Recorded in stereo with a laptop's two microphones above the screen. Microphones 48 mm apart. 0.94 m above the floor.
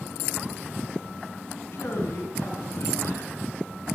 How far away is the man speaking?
About 8 m.